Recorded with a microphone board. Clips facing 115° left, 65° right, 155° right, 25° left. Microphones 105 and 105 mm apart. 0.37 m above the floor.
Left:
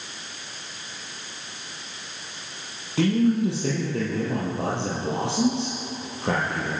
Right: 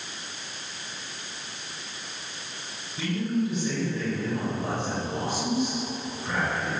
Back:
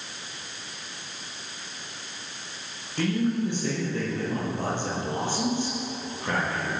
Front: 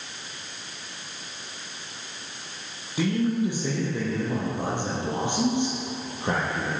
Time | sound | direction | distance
3.0 | a man speaking | 105° left | 8.5 m